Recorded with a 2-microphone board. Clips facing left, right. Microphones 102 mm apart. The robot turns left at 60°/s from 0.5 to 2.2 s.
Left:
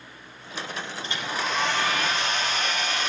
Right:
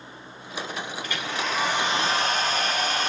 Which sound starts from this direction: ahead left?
A hair dryer, at 1.0 s.